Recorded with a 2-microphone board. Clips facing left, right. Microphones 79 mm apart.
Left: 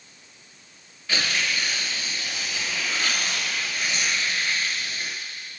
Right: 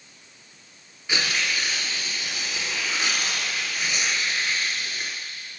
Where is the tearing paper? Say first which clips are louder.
Even; 20° right (ahead or behind), 2 m.